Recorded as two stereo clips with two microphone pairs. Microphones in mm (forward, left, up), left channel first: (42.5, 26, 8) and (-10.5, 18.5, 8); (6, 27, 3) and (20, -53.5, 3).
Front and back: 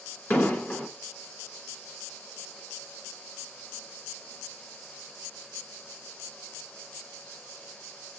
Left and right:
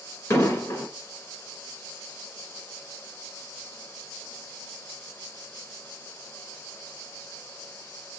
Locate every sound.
0.3 s an explosion: 65° left, 1.4 m